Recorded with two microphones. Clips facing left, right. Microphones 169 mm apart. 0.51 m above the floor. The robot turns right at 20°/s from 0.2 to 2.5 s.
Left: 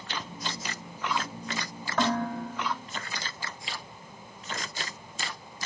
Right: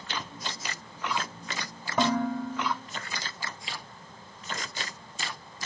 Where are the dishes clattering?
15° right (ahead or behind), 1.0 m; by 2.7 s 25° right (ahead or behind), 1.0 m.